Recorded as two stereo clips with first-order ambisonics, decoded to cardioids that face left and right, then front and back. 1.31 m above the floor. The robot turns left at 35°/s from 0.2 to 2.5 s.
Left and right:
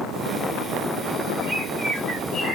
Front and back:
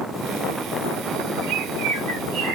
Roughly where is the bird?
Behind.